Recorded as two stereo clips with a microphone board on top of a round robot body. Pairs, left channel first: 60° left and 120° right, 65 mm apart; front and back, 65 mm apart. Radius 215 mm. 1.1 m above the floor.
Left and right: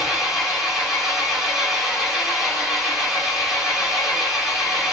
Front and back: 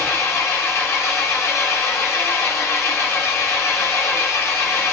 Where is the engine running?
40° right, 2.5 m.